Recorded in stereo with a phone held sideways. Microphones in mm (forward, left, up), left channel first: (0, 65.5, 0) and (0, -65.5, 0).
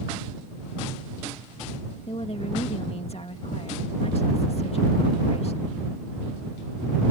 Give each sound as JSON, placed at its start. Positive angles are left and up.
{"t": 2.1, "sound": "a woman speaking", "side_deg": 50}